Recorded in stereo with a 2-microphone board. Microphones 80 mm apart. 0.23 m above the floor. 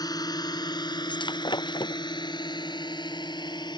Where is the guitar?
I don't hear a guitar.